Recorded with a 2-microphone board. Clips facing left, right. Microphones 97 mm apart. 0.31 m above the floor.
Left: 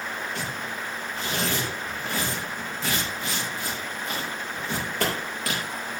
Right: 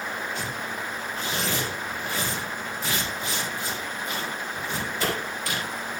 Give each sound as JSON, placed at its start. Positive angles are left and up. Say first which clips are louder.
{"t": 0.3, "sound": "tearing paper", "louder": "right 1 dB", "side_deg": 75, "distance_m": 9.0}